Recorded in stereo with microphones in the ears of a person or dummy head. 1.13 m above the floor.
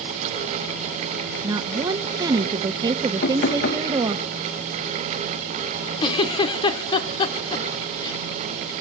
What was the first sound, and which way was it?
A woman speaking, 20° right (ahead or behind).